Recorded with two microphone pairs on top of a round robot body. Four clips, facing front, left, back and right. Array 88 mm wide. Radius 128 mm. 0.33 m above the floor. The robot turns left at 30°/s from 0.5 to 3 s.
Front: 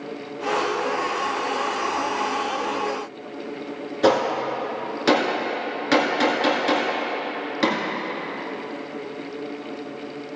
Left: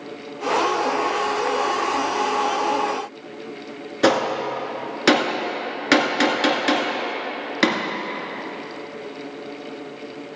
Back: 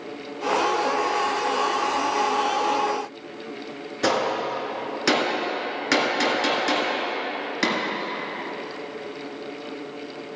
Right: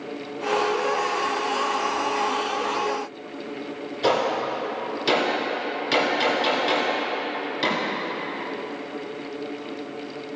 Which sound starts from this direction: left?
A gunshot, at 4.0 s.